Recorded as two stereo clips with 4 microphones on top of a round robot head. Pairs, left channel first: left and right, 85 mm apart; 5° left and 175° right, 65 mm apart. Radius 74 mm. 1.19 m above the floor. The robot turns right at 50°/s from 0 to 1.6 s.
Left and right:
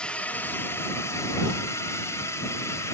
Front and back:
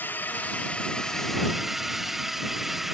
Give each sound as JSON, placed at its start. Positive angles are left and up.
{"t": 0.0, "sound": "a drone", "azimuth_deg": 20}